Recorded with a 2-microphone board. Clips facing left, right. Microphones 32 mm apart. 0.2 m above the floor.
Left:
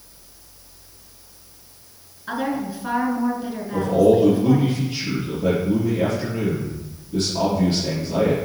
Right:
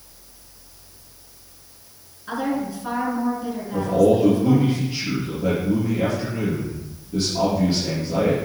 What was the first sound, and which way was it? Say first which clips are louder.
A woman speaking: even; 15° left (ahead or behind).